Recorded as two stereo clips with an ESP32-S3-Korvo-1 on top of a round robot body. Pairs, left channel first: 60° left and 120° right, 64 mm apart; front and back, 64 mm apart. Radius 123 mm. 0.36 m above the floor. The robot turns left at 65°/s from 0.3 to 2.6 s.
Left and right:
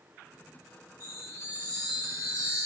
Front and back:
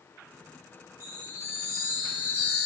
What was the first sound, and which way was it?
A chime, 35° left.